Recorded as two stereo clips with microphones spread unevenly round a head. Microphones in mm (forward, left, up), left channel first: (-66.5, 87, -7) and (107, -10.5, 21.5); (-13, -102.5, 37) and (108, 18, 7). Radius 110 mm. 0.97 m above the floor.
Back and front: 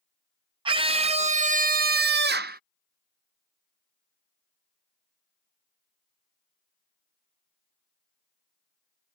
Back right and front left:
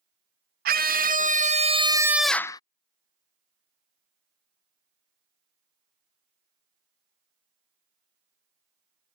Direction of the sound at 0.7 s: 35° left.